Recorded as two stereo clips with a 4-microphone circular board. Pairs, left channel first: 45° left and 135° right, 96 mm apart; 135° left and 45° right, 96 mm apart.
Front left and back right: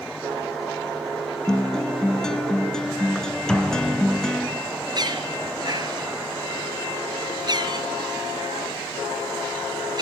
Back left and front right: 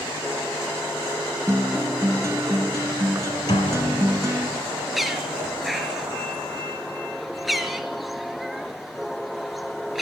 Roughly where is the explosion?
Behind left.